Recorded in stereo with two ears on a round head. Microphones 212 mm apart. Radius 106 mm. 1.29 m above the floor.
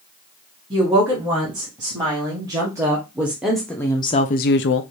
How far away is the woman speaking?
About 3 m.